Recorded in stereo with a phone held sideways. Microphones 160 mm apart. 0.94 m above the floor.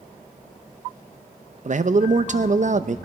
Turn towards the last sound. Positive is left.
turn(degrees=-50)  # may be behind; listen again after turning